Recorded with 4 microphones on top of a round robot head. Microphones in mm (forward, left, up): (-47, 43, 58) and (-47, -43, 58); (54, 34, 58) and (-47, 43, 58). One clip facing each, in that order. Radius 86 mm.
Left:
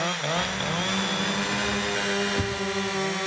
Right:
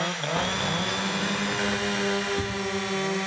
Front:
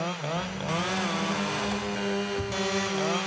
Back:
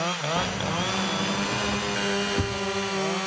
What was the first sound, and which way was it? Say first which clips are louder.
Keys jangling: right 1 dB, back 3 dB; 150° right.